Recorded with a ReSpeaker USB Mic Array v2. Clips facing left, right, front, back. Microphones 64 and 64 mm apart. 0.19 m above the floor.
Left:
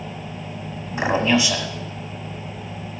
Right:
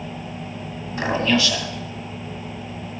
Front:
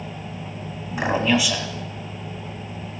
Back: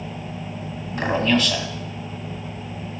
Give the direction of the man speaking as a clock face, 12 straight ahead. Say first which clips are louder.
Left 1 dB, even; 10 o'clock.